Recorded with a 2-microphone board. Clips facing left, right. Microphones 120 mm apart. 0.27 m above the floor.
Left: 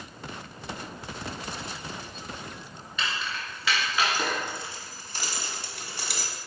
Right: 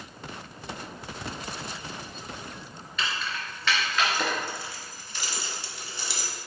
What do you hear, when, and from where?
3.0 s keys jangling: centre (ahead or behind), 3 m; by 6.3 s 55° left (ahead or behind), 1.4 m